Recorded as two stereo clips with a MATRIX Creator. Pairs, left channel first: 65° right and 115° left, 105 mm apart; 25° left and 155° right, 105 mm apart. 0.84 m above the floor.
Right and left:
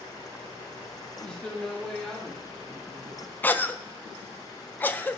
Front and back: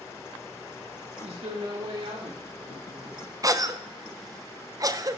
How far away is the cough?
About 0.5 m.